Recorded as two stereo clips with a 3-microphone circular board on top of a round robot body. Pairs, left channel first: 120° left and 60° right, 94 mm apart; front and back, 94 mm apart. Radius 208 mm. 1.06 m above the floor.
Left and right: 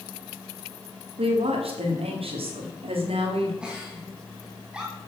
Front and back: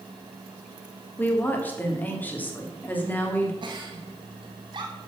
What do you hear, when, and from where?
1.2 s a woman speaking: 70° right, 3 m
3.6 s a giggle: 140° right, 1.7 m